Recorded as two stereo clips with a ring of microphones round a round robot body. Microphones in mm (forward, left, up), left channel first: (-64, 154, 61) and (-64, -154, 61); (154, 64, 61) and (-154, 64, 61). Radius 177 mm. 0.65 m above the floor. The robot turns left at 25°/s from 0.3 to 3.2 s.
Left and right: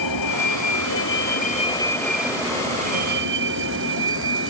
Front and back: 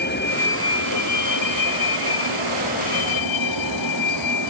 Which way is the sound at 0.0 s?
60° left.